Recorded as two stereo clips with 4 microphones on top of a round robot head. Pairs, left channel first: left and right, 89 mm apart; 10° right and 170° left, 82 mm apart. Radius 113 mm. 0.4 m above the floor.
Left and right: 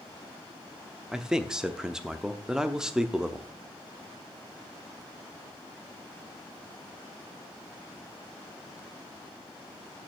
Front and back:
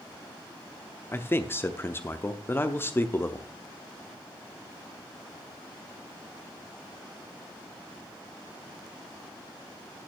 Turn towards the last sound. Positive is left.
turn(degrees=-15)